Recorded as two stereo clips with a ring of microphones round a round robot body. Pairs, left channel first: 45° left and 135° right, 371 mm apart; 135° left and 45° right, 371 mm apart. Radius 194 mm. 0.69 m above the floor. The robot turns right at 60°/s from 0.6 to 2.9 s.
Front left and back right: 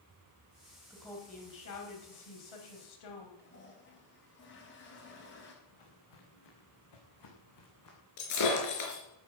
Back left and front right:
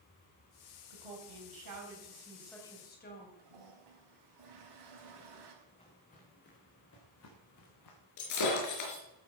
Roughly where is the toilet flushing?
Ahead.